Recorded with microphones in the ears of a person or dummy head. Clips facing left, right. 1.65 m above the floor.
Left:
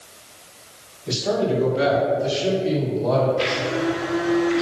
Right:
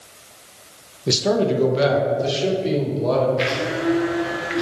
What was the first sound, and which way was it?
A man speaking, 70° right (ahead or behind).